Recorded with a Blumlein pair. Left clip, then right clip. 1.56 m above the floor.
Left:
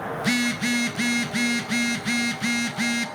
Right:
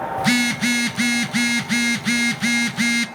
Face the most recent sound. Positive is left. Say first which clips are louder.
# right 5 dB
turn(degrees=-15)